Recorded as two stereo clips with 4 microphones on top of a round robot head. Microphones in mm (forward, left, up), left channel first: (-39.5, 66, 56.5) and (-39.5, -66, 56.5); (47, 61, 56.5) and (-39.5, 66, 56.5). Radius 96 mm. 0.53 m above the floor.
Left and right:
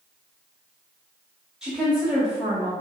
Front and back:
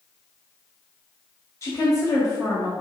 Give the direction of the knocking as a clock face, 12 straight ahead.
I don't hear knocking.